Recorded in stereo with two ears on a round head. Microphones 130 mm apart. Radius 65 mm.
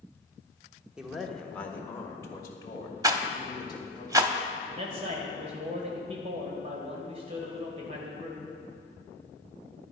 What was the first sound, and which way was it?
A man speaking, 5° right (ahead or behind).